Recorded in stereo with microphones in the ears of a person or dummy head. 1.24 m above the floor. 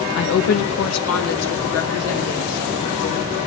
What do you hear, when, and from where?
0.1 s a woman speaking: 55° left (ahead or behind), 1.2 m; by 3.4 s 85° left, 6 m